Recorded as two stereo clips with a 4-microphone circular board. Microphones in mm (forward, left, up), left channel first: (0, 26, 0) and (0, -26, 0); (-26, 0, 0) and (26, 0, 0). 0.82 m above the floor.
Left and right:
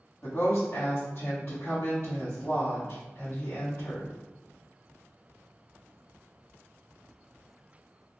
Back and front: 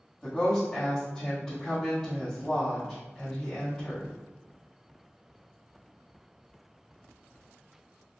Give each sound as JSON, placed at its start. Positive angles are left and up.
{"t": 0.2, "sound": "a woman speaking", "azimuth_deg": 100, "distance_m": 1.8}